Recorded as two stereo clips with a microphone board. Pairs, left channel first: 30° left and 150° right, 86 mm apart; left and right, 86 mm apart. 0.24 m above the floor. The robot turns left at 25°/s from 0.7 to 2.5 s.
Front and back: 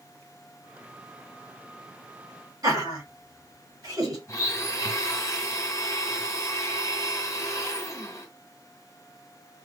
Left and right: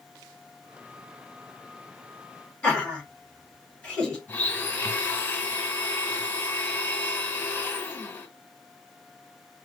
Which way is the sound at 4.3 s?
40° left.